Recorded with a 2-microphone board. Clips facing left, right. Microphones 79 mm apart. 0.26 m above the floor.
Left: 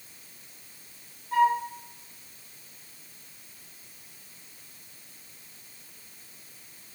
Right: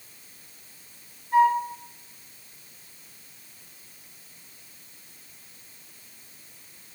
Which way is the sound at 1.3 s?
60° left (ahead or behind).